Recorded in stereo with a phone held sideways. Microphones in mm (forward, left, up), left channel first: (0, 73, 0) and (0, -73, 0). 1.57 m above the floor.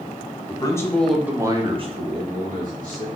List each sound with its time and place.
0.5 s a man speaking: 30° left (ahead or behind), 0.8 m; by 3.1 s 70° right (ahead or behind), 1.3 m